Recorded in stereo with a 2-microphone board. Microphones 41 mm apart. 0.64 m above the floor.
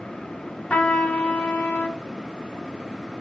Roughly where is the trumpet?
Left.